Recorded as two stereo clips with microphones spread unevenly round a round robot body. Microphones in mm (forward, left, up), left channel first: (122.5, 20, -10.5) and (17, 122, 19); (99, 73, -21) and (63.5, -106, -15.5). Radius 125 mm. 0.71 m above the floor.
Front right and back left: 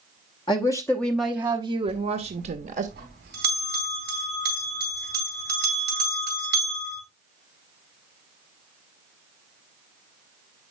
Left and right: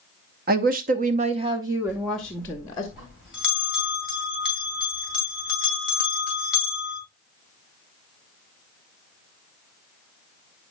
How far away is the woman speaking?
About 0.8 m.